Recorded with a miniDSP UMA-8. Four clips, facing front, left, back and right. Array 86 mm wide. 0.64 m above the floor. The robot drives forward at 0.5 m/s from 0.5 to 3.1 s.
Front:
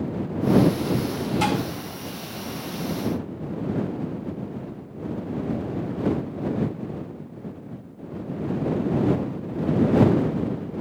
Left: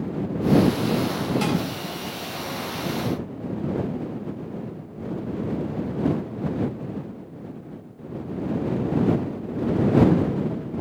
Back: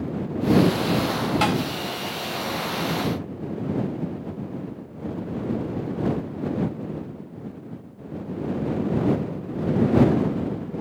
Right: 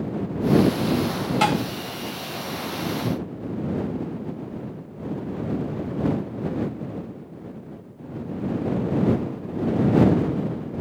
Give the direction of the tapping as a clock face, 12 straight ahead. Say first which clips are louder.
Right 6 dB, even; 5 o'clock.